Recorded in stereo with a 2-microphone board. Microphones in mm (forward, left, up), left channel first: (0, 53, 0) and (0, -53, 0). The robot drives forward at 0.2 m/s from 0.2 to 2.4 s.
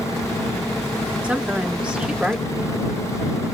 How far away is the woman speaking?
About 1.0 m.